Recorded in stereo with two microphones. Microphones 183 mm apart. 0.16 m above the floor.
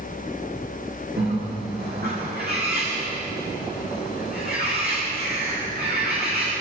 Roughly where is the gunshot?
No gunshot in this recording.